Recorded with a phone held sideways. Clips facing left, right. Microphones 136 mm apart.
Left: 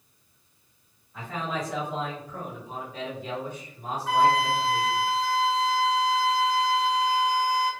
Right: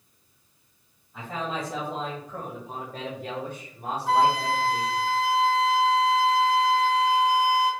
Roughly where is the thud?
No thud in this recording.